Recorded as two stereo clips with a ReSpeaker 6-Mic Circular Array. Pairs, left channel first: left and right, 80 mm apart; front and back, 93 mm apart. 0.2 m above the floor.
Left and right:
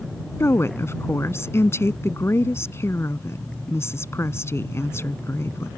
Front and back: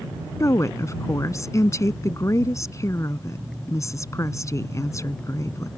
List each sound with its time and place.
0.4 s a woman speaking: 45° left